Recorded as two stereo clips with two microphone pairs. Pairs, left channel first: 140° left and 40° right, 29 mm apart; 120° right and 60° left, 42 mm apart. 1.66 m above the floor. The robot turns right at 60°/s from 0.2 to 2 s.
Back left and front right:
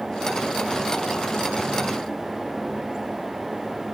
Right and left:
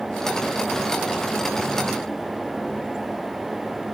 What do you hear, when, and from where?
Only background noise.